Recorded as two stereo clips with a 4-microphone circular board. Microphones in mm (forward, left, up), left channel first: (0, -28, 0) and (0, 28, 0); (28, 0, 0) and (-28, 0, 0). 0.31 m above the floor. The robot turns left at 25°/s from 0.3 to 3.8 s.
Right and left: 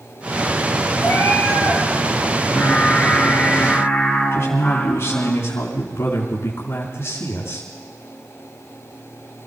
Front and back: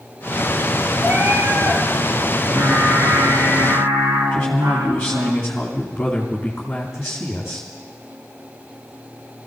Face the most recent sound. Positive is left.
turn(degrees=-75)